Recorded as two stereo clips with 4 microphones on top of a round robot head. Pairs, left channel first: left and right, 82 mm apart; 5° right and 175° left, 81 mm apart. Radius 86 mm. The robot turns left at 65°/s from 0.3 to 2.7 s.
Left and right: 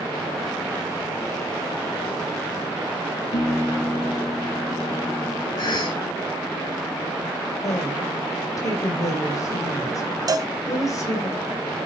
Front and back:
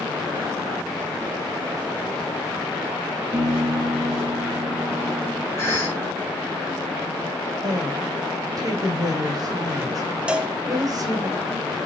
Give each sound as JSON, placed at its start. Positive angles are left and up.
{"t": 3.3, "sound": "a piano", "azimuth_deg": 110, "distance_m": 3.0}
{"t": 5.6, "sound": "a cough", "azimuth_deg": 55, "distance_m": 4.0}
{"t": 7.6, "sound": "a woman speaking", "azimuth_deg": 130, "distance_m": 3.0}
{"t": 10.3, "sound": "a cowbell", "azimuth_deg": -110, "distance_m": 0.9}